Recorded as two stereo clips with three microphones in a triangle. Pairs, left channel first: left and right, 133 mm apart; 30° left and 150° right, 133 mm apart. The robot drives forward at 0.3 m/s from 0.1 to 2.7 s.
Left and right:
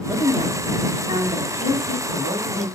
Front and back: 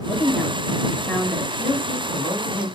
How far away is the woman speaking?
About 1.7 m.